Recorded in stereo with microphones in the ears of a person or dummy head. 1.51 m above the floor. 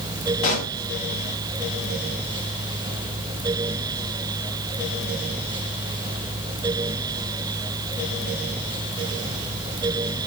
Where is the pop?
45° left (ahead or behind), 1.8 m.